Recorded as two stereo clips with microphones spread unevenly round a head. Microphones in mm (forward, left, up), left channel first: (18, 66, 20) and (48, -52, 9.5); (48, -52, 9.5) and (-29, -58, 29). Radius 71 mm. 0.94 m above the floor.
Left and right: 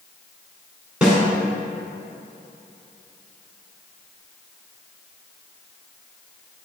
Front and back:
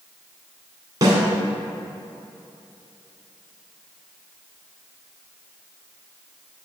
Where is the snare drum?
160° right, 1.6 m.